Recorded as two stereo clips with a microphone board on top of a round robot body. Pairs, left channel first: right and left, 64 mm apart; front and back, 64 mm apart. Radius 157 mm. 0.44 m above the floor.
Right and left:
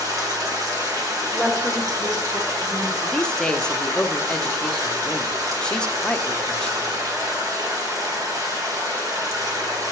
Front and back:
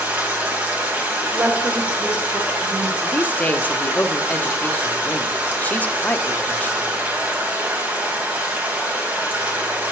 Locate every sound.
0.0 s running water: 115° left, 2 m
1.3 s a woman speaking: 130° left, 1.7 m
3.0 s a man speaking: 25° right, 1.0 m